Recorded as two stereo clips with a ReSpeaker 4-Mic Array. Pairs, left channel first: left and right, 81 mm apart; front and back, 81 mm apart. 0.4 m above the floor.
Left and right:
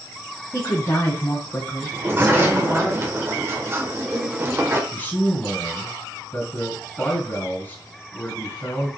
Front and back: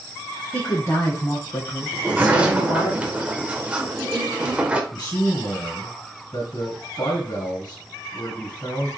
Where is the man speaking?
30° left, 3 m.